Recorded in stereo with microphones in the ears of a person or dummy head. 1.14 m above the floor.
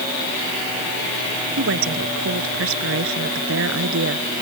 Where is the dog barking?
No dog barking in this recording.